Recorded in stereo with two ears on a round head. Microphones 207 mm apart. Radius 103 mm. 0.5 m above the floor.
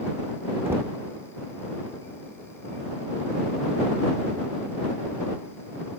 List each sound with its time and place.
0.7 s knocking: 10° right (ahead or behind)